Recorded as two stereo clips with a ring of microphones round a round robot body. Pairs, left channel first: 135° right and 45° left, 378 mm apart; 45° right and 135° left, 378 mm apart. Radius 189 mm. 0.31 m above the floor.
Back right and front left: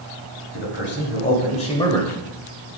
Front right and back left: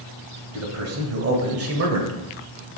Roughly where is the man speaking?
Behind.